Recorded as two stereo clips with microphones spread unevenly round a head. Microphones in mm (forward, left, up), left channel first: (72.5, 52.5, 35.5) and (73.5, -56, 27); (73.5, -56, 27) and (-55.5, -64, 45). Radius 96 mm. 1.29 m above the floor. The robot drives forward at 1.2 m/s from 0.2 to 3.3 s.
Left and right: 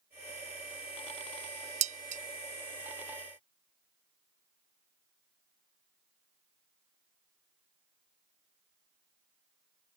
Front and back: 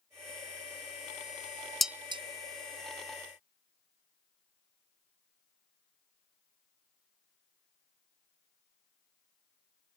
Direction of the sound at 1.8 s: 90° right.